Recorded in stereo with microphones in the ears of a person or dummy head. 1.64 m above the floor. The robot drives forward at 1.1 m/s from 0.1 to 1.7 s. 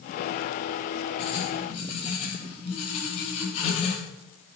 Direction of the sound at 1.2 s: 35° left (ahead or behind).